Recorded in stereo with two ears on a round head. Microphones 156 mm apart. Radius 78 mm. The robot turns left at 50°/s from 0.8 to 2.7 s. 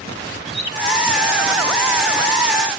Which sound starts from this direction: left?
A bird, at 0.5 s.